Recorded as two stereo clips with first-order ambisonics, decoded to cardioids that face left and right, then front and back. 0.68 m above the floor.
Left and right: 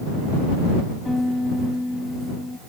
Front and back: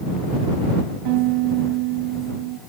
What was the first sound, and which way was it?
A piano, 175° left.